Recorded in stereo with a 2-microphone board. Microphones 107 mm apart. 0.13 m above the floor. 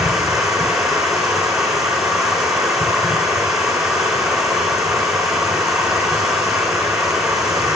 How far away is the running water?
About 6.5 m.